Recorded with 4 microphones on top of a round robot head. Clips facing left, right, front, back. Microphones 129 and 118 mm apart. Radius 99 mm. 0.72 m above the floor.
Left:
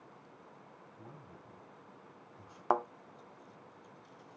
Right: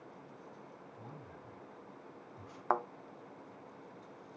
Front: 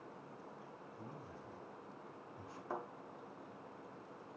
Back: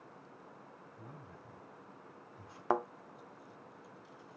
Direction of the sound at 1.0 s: 70° right.